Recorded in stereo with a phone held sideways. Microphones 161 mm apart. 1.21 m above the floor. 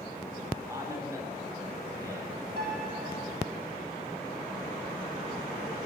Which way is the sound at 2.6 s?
85° right.